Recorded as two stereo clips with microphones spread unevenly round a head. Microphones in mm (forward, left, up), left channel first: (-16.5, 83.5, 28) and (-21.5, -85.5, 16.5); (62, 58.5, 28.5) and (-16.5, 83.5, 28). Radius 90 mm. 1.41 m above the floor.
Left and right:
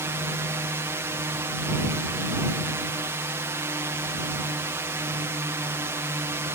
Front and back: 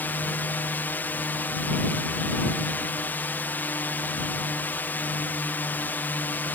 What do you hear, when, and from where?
0.0 s a drone: 45° right